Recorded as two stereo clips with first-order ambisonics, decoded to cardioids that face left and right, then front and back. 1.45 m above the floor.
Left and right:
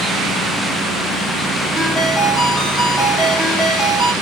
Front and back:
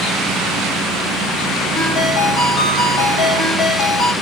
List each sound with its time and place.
1.8 s a ringtone: 5° left, 1.0 m